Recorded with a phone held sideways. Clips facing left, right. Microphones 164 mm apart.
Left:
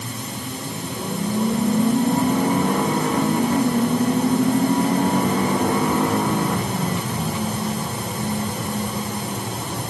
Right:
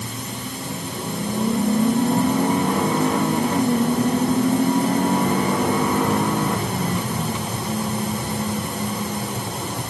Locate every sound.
Only background noise.